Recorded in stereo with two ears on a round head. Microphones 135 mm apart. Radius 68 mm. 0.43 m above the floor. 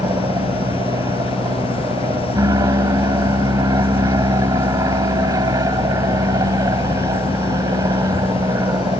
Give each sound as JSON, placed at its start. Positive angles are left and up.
{"t": 0.0, "sound": "an aircraft", "side_deg": -20}